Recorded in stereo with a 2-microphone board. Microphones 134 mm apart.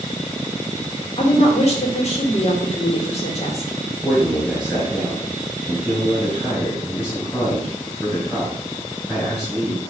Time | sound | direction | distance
1.2 | a woman speaking | 50° left (ahead or behind) | 2 m
4.0 | a man speaking | centre (ahead or behind) | 4.5 m